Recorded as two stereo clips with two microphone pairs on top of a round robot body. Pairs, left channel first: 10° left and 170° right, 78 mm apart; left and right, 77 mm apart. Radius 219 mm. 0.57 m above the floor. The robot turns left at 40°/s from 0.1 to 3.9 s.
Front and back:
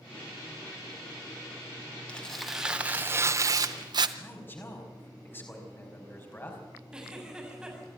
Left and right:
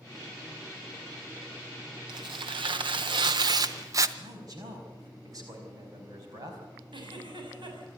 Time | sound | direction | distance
2.1 | tearing paper | 65° right | 0.5 m
4.2 | a man speaking | 50° right | 5 m
6.9 | a giggle | 90° right | 6.5 m